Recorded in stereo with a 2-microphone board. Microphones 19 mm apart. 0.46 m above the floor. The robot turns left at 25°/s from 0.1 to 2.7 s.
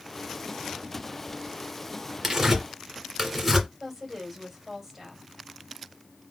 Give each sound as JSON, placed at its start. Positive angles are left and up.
{"t": 2.2, "sound": "tearing paper", "side_deg": -20, "distance_m": 2.0}
{"t": 3.8, "sound": "a woman speaking", "side_deg": -5, "distance_m": 2.5}